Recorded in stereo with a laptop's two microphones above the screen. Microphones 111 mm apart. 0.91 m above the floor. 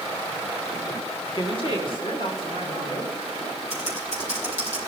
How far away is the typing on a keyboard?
About 4 m.